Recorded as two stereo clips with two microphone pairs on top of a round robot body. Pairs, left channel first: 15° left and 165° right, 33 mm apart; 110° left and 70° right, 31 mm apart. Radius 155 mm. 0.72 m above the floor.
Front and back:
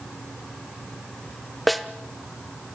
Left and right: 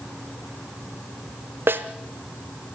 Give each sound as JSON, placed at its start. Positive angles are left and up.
{"t": 1.7, "sound": "a snare drum", "azimuth_deg": -70, "distance_m": 0.8}